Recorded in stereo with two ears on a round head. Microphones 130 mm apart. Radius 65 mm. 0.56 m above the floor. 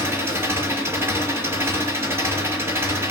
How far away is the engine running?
About 4 m.